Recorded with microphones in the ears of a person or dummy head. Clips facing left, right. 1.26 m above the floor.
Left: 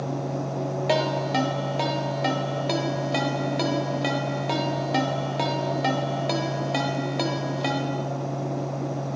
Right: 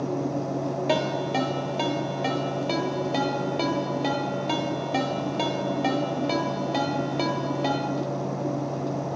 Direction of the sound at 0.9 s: Centre (ahead or behind).